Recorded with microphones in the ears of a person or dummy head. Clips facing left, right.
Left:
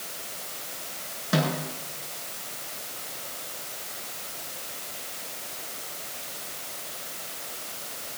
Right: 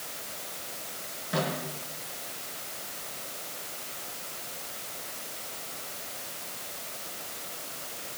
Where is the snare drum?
65° left (ahead or behind), 6 m.